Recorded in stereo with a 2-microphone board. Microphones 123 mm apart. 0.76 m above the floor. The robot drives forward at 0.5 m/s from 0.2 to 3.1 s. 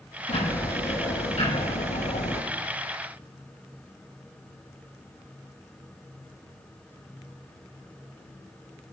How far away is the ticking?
About 5.5 m.